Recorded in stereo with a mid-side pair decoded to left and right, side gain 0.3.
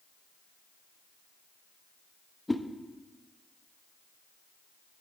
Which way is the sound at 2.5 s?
20° left.